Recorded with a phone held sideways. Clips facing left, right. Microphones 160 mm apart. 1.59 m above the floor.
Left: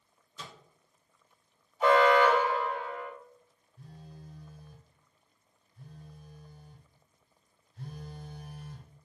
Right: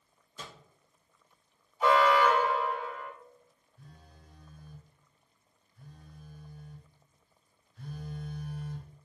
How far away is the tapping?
I don't hear tapping.